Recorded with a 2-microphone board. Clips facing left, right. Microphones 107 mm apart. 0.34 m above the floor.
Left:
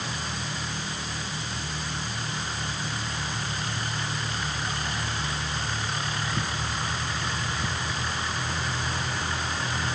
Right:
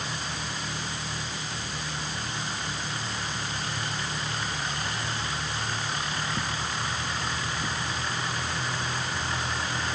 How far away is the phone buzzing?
No phone buzzing in this recording.